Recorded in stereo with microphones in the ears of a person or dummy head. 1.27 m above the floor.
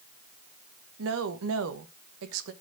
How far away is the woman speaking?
About 1.1 m.